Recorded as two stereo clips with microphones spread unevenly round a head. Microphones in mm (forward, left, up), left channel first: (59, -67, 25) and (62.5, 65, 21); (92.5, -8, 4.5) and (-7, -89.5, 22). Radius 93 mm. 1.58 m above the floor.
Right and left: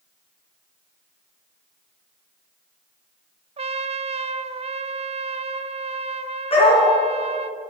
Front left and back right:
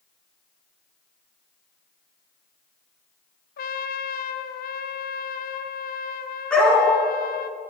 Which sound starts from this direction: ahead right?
A dog barking, at 6.5 s.